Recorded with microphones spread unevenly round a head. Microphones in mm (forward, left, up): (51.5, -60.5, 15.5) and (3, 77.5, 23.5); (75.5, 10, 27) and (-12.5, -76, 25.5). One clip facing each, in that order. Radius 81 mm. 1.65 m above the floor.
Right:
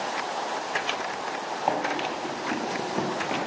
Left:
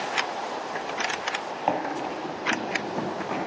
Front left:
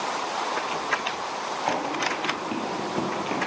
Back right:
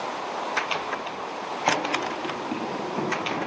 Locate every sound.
1.7 s running footsteps: straight behind, 1.7 m; by 3.4 s 5° right, 2 m